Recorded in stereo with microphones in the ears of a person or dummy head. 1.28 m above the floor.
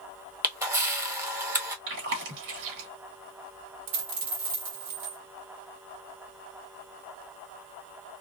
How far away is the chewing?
About 1.3 m.